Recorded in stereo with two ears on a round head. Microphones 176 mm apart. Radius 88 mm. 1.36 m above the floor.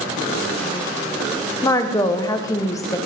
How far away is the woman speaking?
About 0.5 m.